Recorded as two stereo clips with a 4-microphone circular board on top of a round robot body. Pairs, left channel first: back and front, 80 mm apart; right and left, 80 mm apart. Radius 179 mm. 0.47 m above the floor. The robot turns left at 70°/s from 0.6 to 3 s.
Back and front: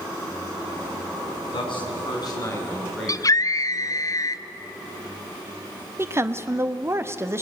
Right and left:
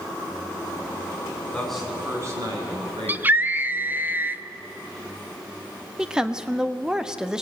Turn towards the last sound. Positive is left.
turn(degrees=15)